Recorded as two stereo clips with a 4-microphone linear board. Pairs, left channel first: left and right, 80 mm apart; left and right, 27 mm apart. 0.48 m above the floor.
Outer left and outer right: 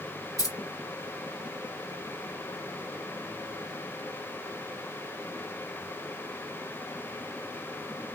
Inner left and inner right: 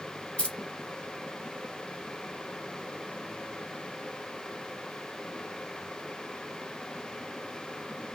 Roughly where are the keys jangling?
Left.